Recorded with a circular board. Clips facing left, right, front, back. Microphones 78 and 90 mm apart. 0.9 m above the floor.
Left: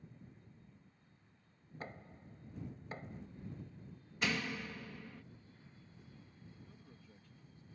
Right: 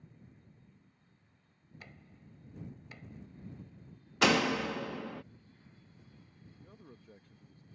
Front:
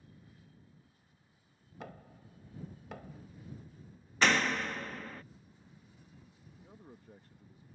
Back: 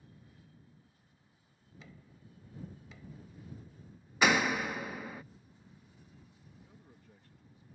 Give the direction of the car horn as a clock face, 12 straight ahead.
No car horn in this recording.